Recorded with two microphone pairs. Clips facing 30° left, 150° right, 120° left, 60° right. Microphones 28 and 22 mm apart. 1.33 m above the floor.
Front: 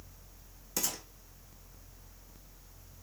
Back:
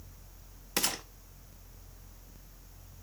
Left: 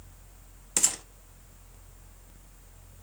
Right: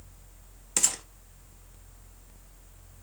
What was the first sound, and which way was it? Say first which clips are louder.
A gunshot: back 5 dB, even; 145° right.